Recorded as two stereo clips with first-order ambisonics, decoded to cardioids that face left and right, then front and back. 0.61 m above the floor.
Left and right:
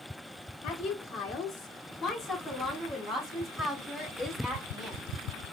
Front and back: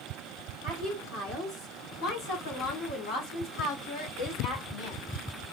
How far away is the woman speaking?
About 1.9 m.